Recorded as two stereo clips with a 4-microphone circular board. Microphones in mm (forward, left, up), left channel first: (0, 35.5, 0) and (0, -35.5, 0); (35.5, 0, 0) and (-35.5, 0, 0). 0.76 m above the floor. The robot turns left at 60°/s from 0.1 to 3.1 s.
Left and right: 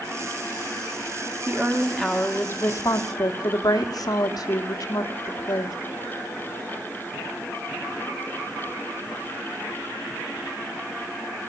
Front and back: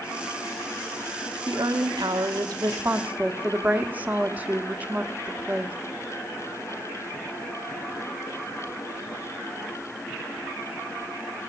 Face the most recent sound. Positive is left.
turn(degrees=110)